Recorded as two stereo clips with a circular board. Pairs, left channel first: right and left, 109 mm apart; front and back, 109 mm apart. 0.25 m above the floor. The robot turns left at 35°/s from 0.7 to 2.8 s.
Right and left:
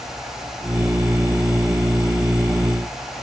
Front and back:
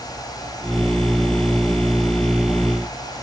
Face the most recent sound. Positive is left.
No sound to turn to.